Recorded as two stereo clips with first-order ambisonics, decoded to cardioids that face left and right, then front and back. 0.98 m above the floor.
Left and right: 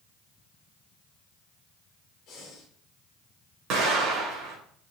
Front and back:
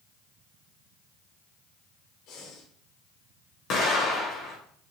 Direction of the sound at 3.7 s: 50° right.